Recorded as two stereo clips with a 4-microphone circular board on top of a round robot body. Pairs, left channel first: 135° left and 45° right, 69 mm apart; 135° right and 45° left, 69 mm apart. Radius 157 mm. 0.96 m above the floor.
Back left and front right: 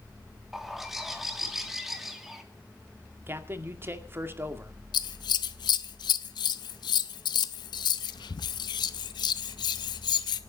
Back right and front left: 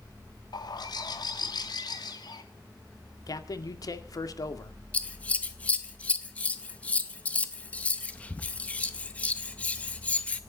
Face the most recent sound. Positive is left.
turn(degrees=155)